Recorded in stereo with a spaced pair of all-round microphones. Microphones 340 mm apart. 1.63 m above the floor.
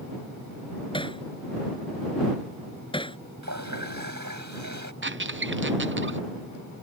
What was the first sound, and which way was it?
Hammering, 15° left (ahead or behind).